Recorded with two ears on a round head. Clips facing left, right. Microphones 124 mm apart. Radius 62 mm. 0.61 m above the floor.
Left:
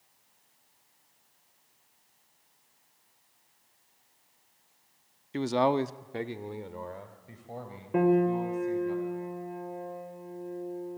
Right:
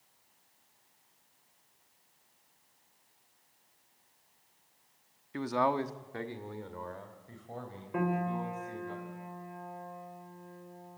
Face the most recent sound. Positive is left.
turn(degrees=35)  # may be behind; listen again after turning